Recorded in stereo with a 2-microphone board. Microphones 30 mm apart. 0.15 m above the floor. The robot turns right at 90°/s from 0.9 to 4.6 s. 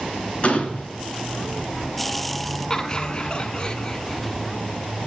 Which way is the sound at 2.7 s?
30° left.